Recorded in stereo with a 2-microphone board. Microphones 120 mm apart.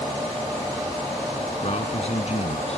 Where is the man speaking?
60° left (ahead or behind); by 2.8 s 55° left (ahead or behind).